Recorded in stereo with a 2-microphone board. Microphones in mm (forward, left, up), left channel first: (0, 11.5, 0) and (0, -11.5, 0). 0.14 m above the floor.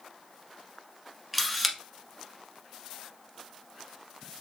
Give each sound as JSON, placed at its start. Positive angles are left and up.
{"t": 1.3, "sound": "a camera shutter", "side_deg": -5, "distance_m": 1.2}